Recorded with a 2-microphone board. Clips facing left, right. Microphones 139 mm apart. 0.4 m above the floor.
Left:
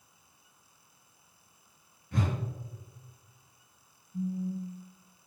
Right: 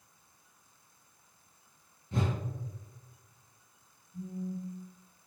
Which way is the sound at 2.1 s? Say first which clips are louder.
Even; 25° right (ahead or behind).